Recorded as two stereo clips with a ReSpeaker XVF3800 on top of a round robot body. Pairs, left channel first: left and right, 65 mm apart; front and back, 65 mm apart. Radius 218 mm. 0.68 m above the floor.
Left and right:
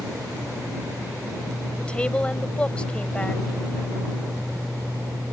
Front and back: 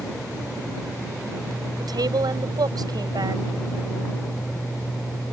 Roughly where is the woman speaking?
Behind.